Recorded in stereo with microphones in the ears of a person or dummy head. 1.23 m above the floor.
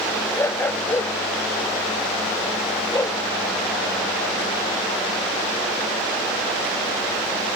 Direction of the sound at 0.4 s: 15° left (ahead or behind).